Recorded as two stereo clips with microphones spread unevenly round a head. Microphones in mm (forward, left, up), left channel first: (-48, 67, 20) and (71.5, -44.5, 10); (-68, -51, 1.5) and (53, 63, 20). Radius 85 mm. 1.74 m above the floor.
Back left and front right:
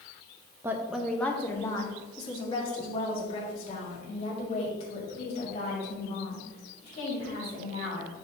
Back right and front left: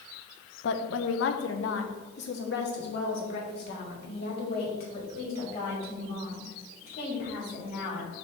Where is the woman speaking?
120° right, 0.7 m; by 8.1 s 175° right, 4.5 m.